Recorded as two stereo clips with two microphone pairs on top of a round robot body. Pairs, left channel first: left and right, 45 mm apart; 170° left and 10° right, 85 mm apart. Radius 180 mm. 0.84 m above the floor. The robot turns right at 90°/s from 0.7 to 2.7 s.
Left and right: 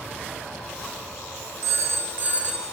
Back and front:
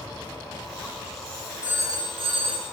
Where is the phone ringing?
90° right, 1.2 m; by 2.7 s 10° left, 1.2 m.